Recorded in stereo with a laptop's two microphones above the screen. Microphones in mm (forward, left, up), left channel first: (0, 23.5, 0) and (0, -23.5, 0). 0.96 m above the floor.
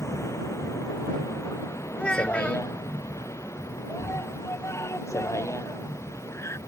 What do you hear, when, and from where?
0.0 s a vehicle: 85° left
2.0 s a child speaking: 20° left (ahead or behind)
3.9 s a scream: 80° left